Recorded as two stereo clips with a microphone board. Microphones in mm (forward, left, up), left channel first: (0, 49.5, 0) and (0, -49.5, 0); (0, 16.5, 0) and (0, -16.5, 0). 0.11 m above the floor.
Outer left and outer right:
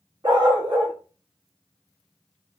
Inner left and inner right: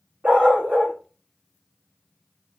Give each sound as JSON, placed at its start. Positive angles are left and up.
{"t": 0.2, "sound": "a dog barking", "side_deg": -50, "distance_m": 1.7}